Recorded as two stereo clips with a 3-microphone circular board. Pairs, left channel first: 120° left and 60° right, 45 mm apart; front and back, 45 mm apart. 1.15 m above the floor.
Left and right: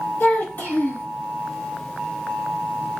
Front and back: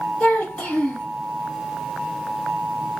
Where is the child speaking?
70° left, 1.7 m.